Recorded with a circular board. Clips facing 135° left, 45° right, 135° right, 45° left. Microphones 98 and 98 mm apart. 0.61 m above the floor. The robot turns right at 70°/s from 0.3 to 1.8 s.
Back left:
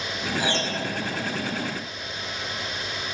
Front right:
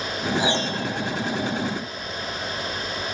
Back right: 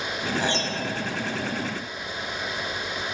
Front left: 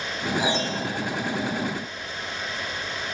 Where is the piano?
30° right, 1.0 m; by 0.8 s 5° left, 1.0 m.